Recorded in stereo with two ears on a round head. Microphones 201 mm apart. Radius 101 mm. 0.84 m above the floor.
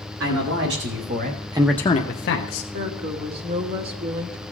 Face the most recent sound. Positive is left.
turn(degrees=-45)  # may be behind; listen again after turning